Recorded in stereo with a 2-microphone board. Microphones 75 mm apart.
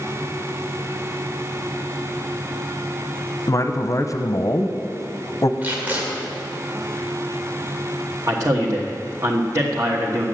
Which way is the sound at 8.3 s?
50° right (ahead or behind).